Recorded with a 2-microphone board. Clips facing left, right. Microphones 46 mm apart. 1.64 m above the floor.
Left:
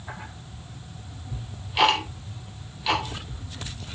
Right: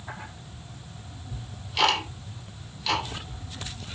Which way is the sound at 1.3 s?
15° left (ahead or behind).